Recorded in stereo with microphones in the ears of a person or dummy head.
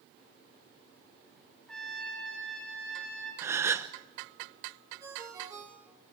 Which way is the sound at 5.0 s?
20° right (ahead or behind).